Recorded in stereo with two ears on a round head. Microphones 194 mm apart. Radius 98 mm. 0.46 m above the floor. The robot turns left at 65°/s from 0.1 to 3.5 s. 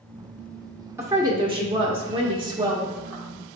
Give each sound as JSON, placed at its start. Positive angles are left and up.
{"t": 1.0, "sound": "a woman speaking", "side_deg": -10, "distance_m": 1.2}